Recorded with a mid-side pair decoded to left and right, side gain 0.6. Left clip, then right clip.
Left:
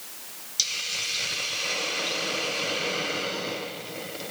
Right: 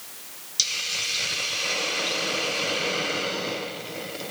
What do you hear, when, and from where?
0.6 s a hiss: 15° right